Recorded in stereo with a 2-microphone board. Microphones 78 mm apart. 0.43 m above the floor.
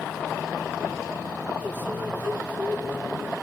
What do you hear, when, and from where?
1.6 s a microwave: 25° right (ahead or behind), 3 m